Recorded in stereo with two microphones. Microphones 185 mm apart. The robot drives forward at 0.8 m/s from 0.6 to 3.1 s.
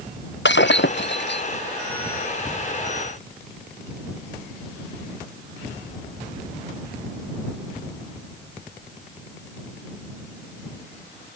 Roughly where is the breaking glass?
Left.